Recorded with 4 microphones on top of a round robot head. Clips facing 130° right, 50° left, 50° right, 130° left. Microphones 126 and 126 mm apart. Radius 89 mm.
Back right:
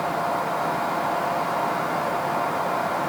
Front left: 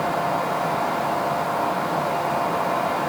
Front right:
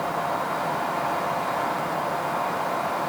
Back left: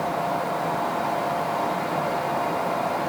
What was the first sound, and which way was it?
Only background noise.